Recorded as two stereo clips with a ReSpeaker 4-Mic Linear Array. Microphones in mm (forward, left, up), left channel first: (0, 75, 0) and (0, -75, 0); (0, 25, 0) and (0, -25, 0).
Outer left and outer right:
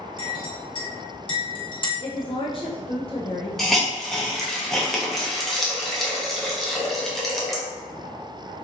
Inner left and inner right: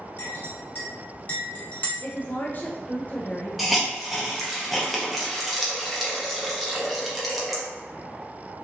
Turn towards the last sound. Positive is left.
turn(degrees=0)  # may be behind; listen again after turning